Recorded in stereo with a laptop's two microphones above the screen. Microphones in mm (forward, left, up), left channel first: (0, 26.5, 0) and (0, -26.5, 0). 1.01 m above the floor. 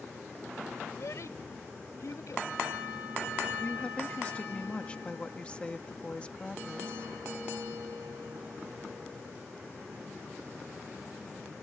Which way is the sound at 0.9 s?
70° left (ahead or behind).